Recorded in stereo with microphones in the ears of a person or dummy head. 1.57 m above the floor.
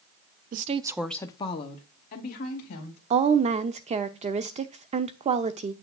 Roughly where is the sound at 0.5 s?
Right.